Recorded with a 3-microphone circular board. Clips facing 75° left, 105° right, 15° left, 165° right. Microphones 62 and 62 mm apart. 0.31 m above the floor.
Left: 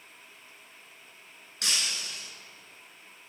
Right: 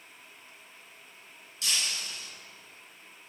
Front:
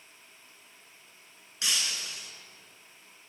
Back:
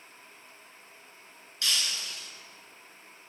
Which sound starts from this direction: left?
Breaking glass, at 1.6 s.